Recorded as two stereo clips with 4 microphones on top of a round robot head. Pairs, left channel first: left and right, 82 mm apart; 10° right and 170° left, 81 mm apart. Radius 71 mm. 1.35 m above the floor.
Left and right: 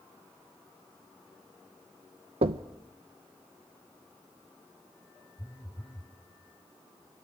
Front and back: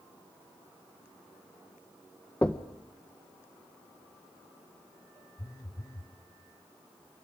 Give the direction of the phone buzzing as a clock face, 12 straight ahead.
11 o'clock.